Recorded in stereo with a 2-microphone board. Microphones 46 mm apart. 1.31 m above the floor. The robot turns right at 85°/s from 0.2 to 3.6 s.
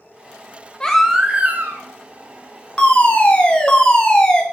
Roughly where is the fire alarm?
Left.